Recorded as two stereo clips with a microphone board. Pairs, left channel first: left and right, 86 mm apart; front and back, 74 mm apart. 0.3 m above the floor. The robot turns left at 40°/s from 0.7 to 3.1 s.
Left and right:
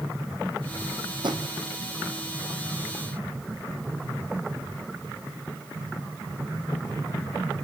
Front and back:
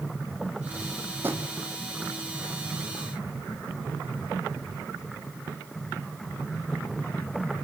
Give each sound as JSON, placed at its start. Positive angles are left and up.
{"t": 1.2, "sound": "a drawer", "azimuth_deg": -120, "distance_m": 3.0}